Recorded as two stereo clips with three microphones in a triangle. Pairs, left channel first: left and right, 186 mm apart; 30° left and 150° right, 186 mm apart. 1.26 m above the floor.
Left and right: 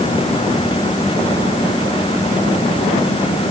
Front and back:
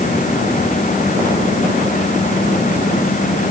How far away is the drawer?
I don't hear a drawer.